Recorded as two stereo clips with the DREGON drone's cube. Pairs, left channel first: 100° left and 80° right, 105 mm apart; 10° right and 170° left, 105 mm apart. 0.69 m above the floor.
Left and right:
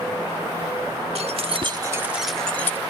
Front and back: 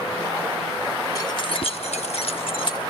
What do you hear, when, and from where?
1.1 s keys jangling: 65° right, 1.1 m; by 2.8 s 30° left, 1.3 m